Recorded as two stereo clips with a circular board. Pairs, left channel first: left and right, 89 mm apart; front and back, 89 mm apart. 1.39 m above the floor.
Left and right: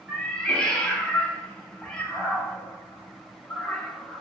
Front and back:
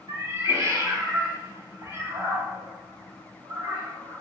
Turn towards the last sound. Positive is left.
turn(degrees=165)